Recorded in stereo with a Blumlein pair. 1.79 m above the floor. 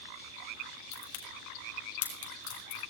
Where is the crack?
55° left, 5 m.